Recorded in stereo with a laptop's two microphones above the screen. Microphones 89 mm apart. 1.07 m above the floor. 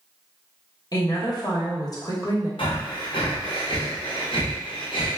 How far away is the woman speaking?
About 1.0 m.